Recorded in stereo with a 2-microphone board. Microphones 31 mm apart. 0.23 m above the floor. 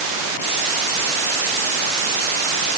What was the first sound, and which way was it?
Only background noise.